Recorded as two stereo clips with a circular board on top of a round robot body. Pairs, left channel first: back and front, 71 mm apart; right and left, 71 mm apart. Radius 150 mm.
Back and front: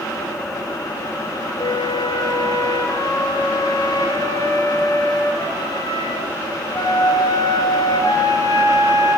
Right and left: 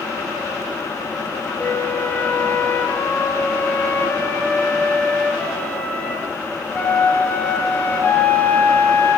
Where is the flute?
155° right, 5.5 m.